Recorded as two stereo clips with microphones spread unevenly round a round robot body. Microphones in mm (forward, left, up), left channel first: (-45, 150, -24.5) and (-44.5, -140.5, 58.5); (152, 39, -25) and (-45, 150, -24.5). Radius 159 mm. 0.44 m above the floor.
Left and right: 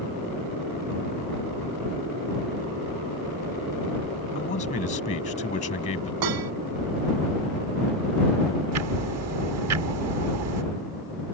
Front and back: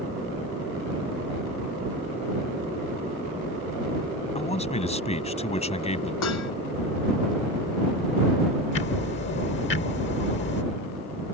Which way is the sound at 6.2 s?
65° right.